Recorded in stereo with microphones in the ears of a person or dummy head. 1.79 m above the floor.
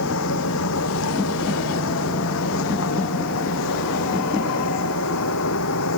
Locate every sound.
0.0 s a machine running: 75° left (ahead or behind)